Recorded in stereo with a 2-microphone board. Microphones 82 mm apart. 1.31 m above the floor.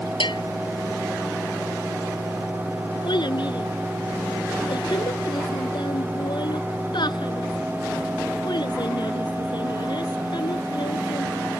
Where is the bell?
80° left.